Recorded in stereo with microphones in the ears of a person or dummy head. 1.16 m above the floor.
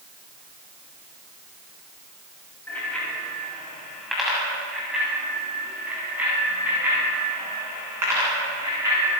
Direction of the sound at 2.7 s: 5° left (ahead or behind).